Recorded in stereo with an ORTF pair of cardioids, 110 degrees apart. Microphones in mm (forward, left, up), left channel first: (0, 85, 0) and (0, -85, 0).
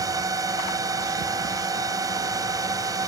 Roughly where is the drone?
Ahead.